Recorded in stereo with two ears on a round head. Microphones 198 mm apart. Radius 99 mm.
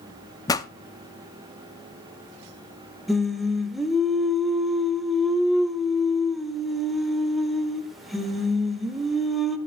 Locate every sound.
0.5 s a pop: 15° left (ahead or behind), 0.5 m
3.1 s singing: centre (ahead or behind), 0.9 m